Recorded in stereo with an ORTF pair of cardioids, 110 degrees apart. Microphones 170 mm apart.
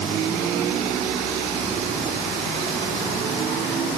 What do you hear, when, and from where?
Only background noise.